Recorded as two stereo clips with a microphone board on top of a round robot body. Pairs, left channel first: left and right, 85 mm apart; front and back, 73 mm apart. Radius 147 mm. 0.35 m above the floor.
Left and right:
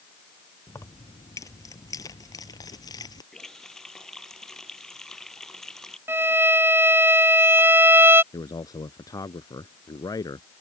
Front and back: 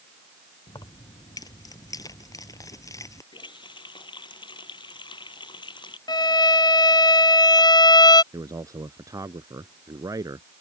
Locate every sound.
0.7 s keys jangling: 35° left; by 3.2 s 50° left
3.3 s a running tap: 5° left
6.1 s a violin: 25° right
8.3 s a man speaking: 135° left